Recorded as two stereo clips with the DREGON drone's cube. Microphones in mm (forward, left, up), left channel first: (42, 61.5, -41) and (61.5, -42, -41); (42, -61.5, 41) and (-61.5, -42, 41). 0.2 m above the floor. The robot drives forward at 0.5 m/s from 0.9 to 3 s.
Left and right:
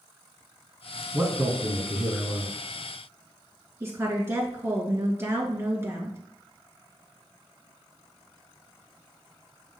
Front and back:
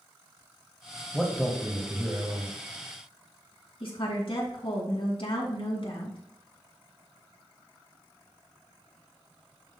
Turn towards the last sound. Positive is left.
turn(degrees=-20)